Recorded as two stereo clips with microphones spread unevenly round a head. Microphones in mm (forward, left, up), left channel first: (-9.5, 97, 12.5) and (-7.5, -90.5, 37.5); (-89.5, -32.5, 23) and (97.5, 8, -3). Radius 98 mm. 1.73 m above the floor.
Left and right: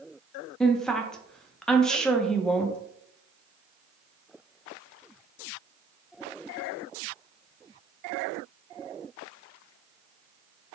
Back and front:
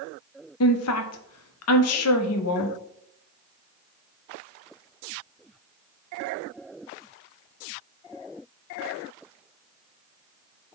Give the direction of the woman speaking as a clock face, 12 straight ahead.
6 o'clock.